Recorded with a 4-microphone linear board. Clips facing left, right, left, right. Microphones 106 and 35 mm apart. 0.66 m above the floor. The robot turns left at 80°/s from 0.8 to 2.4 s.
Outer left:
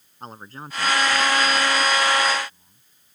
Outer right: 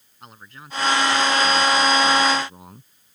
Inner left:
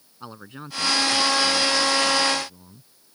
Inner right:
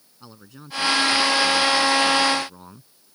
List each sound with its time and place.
0.2 s a man speaking: 35° left; by 3.2 s 90° right